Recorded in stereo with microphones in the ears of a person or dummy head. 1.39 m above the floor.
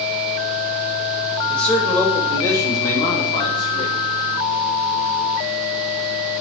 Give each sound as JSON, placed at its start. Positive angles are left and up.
{"t": 1.5, "sound": "a man speaking", "side_deg": 10, "distance_m": 2.5}